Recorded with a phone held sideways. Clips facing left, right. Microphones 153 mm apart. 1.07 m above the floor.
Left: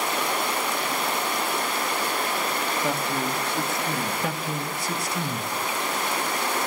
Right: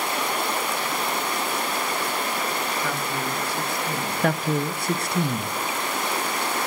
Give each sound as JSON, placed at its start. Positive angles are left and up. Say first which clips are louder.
{"t": 2.8, "sound": "a man speaking", "louder": "left 1 dB", "side_deg": 25, "distance_m": 1.2}
{"t": 4.2, "sound": "a man speaking", "louder": "right 6 dB", "side_deg": -60, "distance_m": 0.8}